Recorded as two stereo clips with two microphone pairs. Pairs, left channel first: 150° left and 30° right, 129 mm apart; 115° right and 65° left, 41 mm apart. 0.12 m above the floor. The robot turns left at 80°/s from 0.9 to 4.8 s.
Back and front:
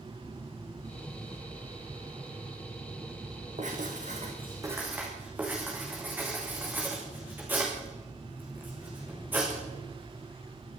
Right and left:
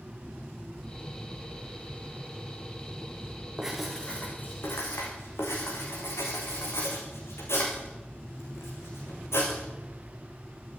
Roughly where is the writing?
Ahead.